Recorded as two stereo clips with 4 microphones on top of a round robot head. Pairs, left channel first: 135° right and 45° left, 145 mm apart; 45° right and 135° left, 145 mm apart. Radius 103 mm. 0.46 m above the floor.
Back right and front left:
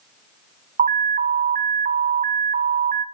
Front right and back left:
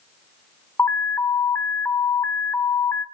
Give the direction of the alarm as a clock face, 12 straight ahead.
11 o'clock.